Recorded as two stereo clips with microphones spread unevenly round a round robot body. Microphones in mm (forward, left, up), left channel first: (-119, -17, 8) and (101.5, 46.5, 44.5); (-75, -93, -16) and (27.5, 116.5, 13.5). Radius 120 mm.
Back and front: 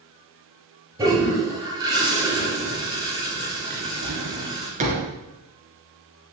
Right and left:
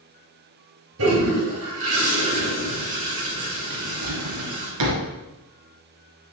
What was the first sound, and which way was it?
A toilet flushing, 90° left.